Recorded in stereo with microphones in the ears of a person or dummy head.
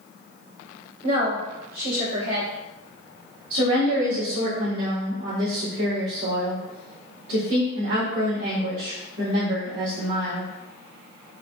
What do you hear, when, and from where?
1.0 s a woman speaking: 75° right (ahead or behind), 1.8 m
3.5 s a woman speaking: 70° right (ahead or behind), 1.8 m